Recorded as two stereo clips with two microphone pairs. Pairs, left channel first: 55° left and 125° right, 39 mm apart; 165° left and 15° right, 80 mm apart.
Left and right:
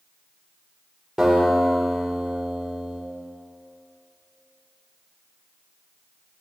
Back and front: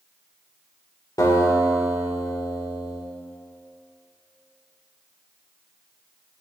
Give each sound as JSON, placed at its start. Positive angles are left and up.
{"t": 1.2, "sound": "a guitar", "azimuth_deg": 165, "distance_m": 2.0}